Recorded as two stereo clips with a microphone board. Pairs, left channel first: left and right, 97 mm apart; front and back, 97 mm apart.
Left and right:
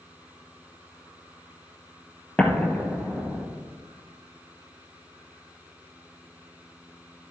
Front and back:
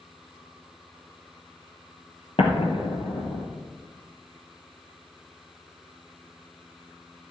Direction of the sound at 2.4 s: 10° left.